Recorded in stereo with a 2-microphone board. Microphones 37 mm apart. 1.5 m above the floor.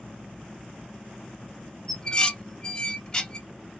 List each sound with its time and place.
1.9 s dishes clattering: 20° left (ahead or behind), 0.7 m